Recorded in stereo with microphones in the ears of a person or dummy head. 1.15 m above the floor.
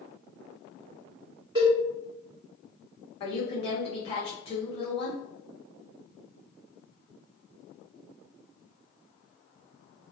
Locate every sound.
1.6 s a cowbell: 20° right (ahead or behind), 1.1 m
3.2 s a woman speaking: 35° left (ahead or behind), 0.8 m